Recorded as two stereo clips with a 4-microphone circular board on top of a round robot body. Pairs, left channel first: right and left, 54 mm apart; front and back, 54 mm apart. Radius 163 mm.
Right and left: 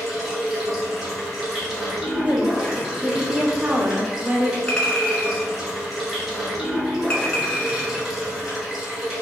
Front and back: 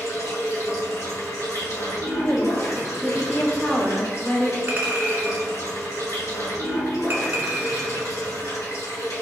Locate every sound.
0.0 s running water: straight ahead, 1.5 m
2.2 s a woman speaking: 60° left, 0.8 m
4.7 s a clink: 150° right, 1.1 m